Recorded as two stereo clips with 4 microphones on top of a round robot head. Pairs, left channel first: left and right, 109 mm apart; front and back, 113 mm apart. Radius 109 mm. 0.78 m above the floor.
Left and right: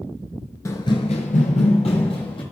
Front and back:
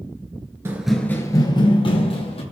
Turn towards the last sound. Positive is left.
turn(degrees=30)